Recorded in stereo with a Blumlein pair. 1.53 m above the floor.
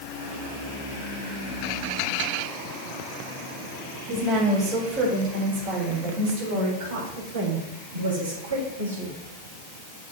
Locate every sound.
4.1 s a woman speaking: 25° right, 5 m; by 9.2 s 75° right, 4.5 m